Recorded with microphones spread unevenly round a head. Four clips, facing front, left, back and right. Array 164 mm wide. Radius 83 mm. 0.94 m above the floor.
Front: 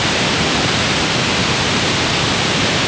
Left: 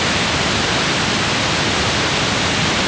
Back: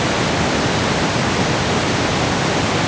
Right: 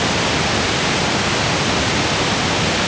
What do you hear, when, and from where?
Only background noise.